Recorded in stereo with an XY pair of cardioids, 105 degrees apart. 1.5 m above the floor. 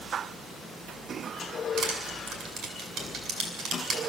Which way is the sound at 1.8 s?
65° right.